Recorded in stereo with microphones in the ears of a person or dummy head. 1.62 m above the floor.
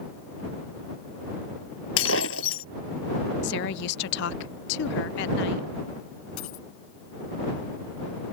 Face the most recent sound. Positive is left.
turn(degrees=75)  # may be behind; listen again after turning